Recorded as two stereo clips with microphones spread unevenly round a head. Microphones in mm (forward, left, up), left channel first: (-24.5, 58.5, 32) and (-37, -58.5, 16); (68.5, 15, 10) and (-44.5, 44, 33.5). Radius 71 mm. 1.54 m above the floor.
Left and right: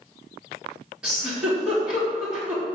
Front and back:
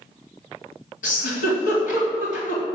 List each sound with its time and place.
1.0 s a giggle: 10° right, 3.5 m